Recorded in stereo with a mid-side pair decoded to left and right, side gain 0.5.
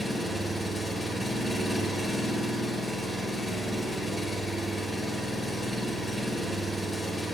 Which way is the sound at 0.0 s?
5° left.